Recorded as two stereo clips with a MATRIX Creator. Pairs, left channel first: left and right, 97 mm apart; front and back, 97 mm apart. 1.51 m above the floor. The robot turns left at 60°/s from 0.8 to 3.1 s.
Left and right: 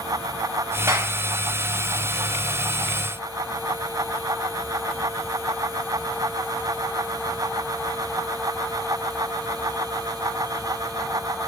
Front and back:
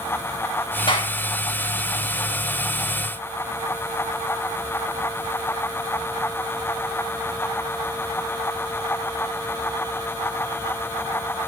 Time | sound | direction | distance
0.9 | a clap | 30° right | 7 m